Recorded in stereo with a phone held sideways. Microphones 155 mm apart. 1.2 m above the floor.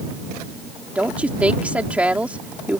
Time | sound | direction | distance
0.9 | a woman speaking | 10° right (ahead or behind) | ?